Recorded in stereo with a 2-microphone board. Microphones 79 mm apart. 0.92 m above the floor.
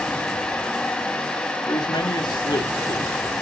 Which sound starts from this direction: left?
A man speaking, at 1.7 s.